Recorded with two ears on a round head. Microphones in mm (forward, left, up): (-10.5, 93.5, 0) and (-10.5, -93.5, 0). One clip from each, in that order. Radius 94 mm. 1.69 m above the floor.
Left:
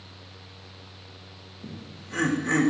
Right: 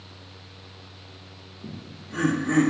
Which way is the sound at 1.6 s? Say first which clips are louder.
Right 1 dB; 55° left (ahead or behind).